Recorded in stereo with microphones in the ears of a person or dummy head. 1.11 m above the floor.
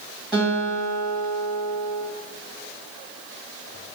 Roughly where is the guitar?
Centre.